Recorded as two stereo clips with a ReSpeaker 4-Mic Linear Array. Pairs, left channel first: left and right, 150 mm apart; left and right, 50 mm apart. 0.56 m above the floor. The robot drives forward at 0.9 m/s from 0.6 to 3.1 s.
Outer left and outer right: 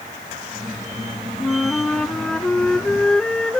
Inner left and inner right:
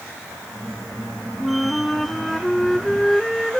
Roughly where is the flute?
Centre.